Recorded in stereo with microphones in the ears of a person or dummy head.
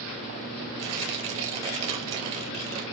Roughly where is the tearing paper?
Right.